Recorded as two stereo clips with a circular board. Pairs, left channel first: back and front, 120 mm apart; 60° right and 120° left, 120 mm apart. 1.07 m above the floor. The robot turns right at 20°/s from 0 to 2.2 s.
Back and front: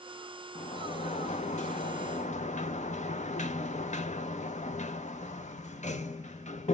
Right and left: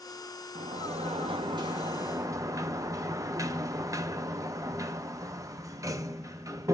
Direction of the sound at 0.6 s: 150° left.